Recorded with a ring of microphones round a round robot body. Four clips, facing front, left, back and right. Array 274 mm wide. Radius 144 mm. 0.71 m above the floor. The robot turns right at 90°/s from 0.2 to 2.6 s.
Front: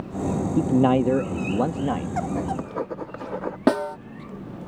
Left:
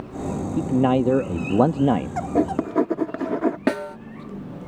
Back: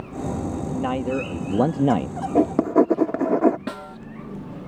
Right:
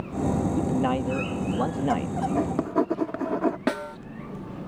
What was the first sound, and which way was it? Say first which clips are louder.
A man speaking: left 5 dB, front 10 dB; 15° left.